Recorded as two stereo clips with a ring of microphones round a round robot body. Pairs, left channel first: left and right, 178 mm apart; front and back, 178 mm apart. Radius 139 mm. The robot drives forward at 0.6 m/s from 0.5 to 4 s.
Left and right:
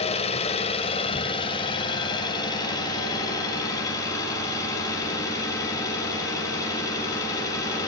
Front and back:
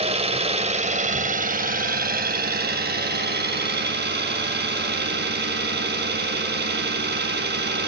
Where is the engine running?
135° left, 1.4 m; by 7.9 s 165° left, 3 m.